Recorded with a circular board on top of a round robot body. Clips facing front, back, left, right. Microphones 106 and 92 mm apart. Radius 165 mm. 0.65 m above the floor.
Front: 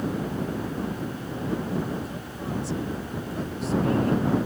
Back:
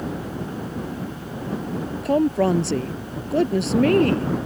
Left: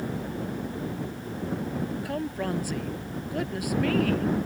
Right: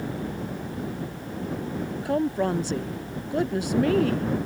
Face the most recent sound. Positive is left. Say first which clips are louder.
# back 16 dB, right 6 dB
turn(degrees=-155)